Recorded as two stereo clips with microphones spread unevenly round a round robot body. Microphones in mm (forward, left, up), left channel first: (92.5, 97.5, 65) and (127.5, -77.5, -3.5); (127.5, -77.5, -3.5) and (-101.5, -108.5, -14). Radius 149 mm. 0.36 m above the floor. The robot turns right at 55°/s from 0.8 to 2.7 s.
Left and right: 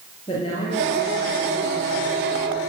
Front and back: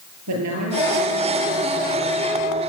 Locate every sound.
0.3 s a woman speaking: 170° left, 6 m; by 2.2 s 110° right, 6 m